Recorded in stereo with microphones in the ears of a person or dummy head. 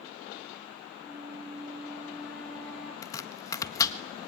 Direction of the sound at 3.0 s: 20° left (ahead or behind).